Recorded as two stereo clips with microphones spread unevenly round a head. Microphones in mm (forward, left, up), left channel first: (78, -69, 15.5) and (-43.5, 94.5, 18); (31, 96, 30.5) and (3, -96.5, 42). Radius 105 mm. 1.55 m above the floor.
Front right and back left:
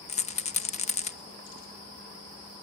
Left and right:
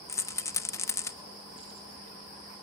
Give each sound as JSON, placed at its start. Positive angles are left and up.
{"t": 0.1, "sound": "a rattle", "azimuth_deg": 5, "distance_m": 1.2}